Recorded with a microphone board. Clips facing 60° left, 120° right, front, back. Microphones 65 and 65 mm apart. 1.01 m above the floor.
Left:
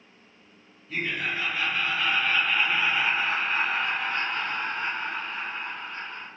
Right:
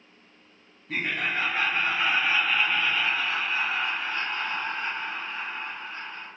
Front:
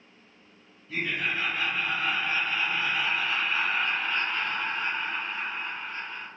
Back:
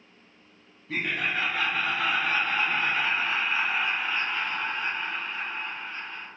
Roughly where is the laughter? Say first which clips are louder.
Right 1 dB, back 1 dB; behind right.